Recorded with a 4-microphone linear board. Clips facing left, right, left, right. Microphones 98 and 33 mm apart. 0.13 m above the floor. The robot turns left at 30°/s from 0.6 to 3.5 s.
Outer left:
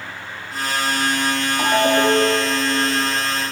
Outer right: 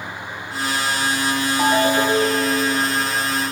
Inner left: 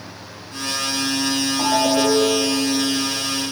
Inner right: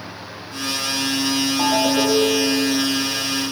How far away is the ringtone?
About 2.5 m.